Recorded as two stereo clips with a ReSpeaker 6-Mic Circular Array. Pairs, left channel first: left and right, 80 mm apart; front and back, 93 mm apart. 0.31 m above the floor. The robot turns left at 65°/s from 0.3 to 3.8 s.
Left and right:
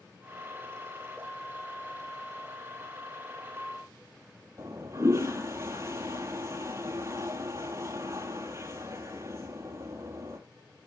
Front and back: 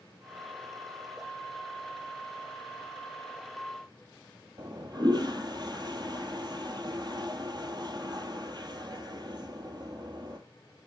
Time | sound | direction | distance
4.6 | a toilet flushing | 145° right | 1.3 m